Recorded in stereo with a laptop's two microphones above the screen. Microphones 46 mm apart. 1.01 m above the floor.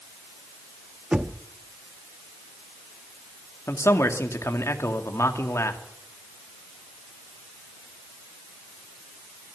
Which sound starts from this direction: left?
A man speaking, at 3.7 s.